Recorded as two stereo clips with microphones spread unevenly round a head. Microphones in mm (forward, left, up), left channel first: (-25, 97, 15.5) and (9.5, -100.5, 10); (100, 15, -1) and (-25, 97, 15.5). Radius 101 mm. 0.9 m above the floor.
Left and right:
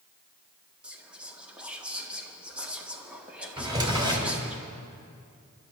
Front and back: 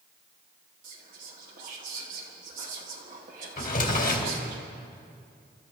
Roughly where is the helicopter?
I don't hear a helicopter.